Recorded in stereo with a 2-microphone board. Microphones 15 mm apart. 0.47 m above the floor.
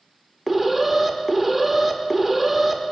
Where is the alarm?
5° right (ahead or behind), 0.6 m.